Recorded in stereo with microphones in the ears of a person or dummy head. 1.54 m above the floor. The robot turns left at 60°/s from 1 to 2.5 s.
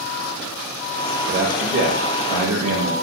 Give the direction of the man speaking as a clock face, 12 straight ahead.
1 o'clock.